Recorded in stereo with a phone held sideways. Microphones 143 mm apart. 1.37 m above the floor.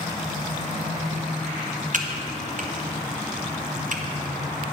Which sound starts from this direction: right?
Typing on a keyboard, at 1.9 s.